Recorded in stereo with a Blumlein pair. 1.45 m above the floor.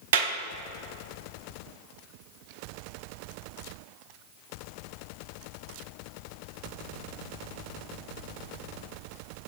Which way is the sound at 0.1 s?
60° right.